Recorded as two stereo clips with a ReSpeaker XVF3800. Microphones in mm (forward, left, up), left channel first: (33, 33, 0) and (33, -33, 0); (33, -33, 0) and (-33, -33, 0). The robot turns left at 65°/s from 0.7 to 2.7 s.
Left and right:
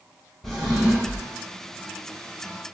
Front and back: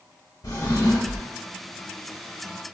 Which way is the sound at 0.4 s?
5° left.